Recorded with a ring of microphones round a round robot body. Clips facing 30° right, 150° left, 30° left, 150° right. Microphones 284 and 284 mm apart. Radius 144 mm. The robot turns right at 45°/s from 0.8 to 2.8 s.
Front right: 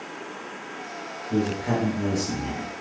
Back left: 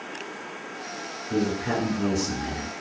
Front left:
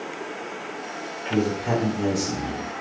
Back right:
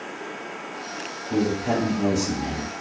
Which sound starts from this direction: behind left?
A man speaking, at 1.3 s.